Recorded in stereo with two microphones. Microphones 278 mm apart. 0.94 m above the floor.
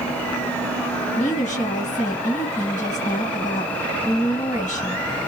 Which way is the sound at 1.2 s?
25° left (ahead or behind).